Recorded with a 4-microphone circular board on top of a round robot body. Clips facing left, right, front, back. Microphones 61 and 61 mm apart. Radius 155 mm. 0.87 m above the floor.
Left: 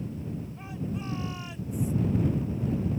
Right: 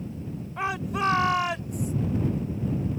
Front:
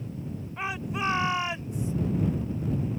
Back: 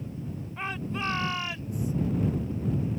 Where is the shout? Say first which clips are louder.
Right 13 dB, front 2 dB; 85° right; by 1.9 s 65° right.